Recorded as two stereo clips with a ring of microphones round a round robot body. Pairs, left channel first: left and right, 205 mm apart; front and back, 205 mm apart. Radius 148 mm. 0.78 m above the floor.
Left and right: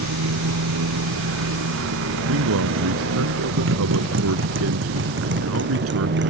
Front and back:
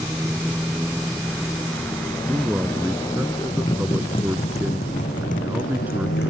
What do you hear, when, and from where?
0.0 s a motorcycle: 95° right; by 6.3 s 60° right
2.2 s a man speaking: 95° right